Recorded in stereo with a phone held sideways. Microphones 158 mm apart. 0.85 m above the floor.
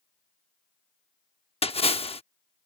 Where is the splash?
35° left (ahead or behind).